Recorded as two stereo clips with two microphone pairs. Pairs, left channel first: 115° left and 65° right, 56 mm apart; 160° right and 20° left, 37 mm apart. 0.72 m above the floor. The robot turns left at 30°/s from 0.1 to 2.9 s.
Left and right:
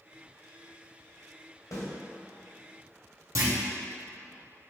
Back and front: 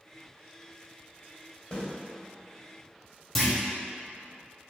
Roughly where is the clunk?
Right.